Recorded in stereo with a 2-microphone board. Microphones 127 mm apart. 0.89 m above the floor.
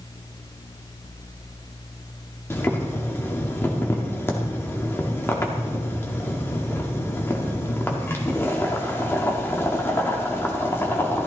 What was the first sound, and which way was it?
Boiling, 20° left (ahead or behind).